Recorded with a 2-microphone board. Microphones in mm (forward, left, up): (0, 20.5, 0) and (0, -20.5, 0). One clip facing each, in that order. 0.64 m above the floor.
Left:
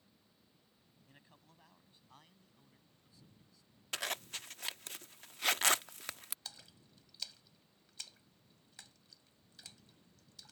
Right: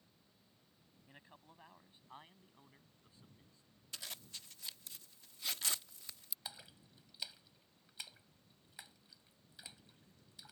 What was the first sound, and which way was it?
A man speaking, 20° right (ahead or behind).